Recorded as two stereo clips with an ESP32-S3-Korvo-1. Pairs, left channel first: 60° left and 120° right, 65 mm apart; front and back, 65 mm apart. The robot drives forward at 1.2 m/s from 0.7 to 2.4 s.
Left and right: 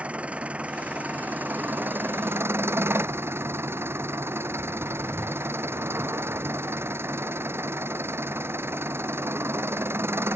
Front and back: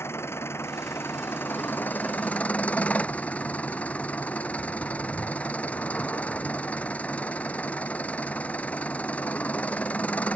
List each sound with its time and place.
0.0 s an engine running: 50° right; by 10.4 s 70° right